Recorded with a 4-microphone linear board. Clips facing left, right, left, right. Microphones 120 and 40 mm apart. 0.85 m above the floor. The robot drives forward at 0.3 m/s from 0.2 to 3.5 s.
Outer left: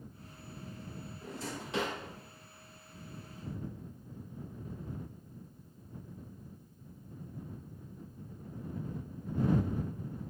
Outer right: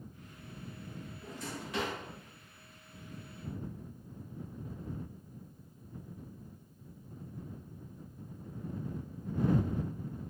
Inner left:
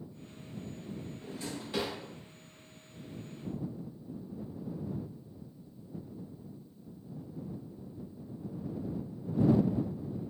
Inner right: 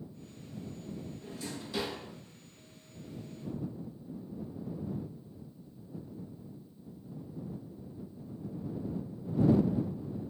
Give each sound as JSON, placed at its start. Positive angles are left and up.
{"t": 1.2, "sound": "a drawer", "side_deg": 30, "distance_m": 1.5}